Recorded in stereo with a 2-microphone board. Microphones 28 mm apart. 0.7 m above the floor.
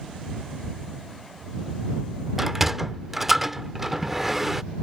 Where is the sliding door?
10° right (ahead or behind).